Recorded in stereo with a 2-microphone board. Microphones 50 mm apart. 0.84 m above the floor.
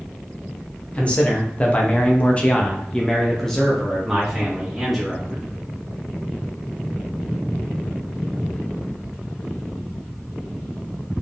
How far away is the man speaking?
About 1.2 m.